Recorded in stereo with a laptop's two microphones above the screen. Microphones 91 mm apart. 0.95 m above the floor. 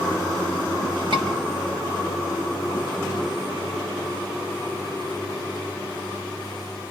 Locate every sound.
1.1 s a scream: 65° right (ahead or behind), 4.5 m